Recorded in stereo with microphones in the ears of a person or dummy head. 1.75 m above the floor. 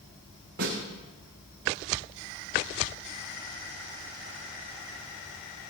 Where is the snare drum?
55° right (ahead or behind), 7.5 m.